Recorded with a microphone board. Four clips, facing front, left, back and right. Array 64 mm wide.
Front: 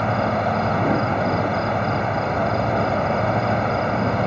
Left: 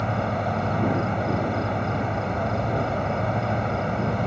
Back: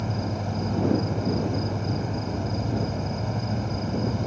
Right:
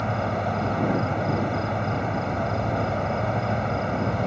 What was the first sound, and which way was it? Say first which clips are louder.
An insect: even, front 10 dB; straight ahead.